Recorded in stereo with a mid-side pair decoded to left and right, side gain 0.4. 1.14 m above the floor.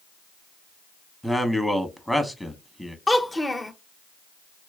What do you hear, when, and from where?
1.2 s a man speaking: 10° left, 1.0 m
3.1 s a child speaking: 15° left, 0.6 m